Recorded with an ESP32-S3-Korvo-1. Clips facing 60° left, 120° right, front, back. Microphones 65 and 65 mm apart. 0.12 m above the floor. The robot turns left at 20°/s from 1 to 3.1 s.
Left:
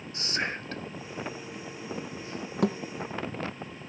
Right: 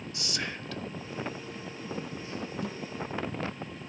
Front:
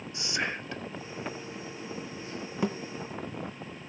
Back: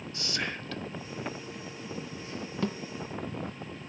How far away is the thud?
About 1.5 m.